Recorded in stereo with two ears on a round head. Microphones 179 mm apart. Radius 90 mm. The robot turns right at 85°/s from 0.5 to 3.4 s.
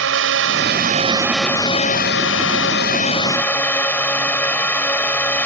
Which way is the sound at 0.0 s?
75° right.